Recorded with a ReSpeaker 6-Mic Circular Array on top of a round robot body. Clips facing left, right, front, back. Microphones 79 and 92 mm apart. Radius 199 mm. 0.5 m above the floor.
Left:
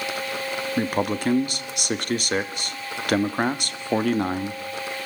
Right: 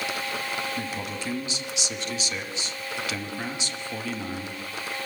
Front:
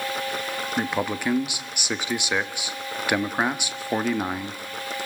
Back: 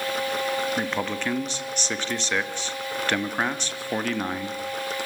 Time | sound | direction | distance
0.8 | a man speaking | 75° left | 1.3 m